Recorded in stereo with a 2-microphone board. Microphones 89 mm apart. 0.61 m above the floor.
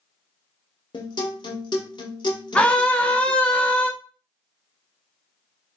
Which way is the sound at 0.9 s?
60° left (ahead or behind).